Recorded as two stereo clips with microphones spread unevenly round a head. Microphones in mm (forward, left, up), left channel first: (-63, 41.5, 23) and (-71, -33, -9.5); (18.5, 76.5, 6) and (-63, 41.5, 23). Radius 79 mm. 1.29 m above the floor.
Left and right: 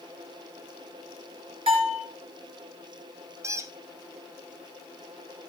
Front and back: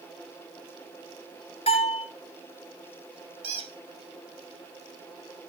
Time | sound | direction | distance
1.7 | a bell | 40° right | 3.5 m
3.4 | a squeak | 150° right | 2.5 m